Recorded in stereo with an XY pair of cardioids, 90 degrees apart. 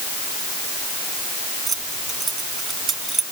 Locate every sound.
1.7 s keys jangling: 45° right